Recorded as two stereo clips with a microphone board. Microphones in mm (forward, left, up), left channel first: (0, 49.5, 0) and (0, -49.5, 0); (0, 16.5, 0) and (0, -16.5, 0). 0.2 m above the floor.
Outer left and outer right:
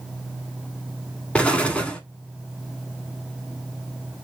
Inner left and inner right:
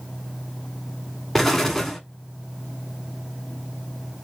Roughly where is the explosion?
Centre.